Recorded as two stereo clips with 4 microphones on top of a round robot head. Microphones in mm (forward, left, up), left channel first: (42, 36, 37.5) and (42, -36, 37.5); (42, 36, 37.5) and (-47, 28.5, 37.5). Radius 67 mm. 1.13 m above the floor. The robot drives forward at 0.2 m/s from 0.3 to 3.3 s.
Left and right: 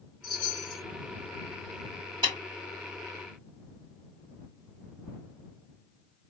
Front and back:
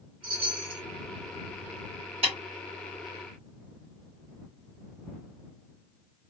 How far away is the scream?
No scream in this recording.